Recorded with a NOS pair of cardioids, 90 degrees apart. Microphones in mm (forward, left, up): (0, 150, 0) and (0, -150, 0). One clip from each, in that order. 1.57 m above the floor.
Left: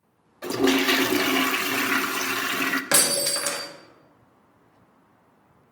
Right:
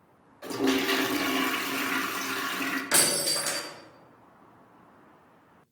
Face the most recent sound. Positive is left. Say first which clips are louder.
# left 1 dB
turn(degrees=55)